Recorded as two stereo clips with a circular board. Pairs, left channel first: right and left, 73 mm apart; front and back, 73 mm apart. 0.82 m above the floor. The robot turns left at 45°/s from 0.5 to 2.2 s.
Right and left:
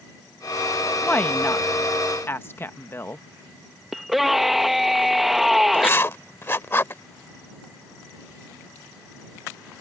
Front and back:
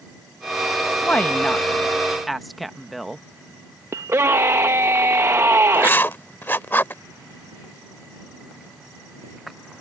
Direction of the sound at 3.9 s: 175° left.